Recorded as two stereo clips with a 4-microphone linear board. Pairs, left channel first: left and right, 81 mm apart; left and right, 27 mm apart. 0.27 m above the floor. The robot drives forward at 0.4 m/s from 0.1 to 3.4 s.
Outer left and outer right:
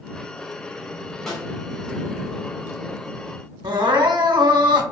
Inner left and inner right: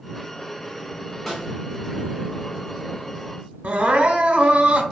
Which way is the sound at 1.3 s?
5° left (ahead or behind).